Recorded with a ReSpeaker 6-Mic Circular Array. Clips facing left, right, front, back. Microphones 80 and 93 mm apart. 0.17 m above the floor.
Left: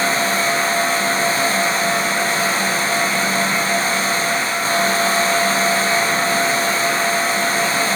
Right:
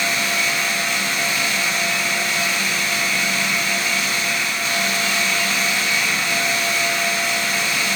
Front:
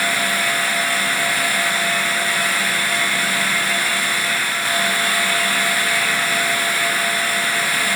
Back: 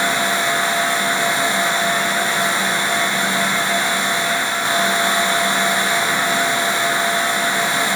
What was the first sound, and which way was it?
Only background noise.